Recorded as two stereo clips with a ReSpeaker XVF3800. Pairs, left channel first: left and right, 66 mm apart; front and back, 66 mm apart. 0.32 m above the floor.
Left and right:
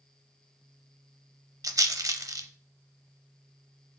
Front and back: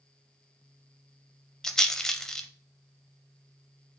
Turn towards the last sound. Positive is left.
turn(degrees=-80)